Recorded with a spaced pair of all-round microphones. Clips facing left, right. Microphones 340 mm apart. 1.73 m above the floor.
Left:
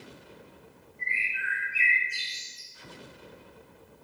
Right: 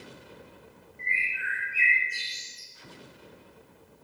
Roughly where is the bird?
Right.